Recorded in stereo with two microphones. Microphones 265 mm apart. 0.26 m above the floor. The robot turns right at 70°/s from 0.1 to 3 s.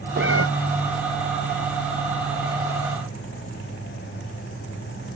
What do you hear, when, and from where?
0.2 s a cat meowing: 45° right (ahead or behind); by 0.5 s 65° right (ahead or behind)